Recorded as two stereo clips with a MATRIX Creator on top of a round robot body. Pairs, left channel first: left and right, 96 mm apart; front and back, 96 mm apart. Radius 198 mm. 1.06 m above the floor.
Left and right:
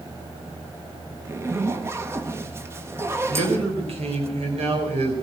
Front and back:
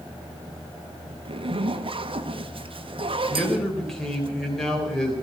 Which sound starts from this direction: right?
A man speaking, at 3.3 s.